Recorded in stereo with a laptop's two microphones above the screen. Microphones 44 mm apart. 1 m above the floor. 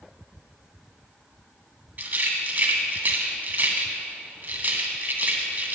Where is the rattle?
35° right (ahead or behind), 1.6 m.